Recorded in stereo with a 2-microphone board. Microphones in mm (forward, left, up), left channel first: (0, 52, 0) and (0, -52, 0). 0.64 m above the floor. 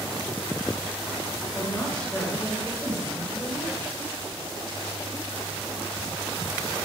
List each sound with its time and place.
1.5 s a woman speaking: 10° left (ahead or behind), 3 m